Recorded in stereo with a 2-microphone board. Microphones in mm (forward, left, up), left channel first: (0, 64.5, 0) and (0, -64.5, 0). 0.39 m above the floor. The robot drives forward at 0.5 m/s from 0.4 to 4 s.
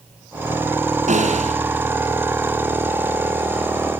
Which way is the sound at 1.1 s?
75° right (ahead or behind).